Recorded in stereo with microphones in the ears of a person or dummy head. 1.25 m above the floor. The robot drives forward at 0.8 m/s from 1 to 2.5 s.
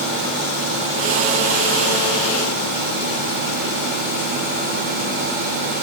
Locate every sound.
Only background noise.